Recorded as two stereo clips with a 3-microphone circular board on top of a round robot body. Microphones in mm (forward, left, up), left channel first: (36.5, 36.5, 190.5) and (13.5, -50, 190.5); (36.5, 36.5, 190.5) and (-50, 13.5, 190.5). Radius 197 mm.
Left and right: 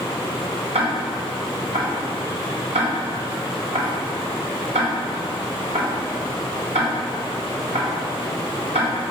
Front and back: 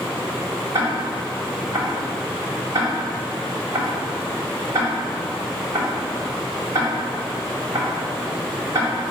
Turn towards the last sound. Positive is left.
turn(degrees=-105)